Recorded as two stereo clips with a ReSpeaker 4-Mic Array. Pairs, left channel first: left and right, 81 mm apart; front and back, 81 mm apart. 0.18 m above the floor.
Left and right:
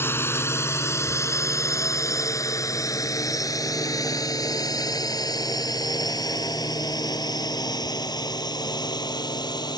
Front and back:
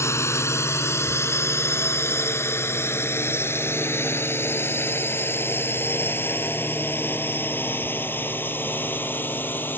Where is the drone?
40° left; by 9.8 s 65° left.